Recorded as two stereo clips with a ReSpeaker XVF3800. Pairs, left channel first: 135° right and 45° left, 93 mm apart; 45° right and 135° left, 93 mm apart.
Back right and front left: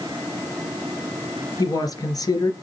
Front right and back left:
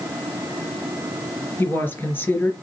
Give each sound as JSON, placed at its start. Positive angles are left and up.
{"t": 1.6, "sound": "a woman speaking", "azimuth_deg": -105, "distance_m": 2.5}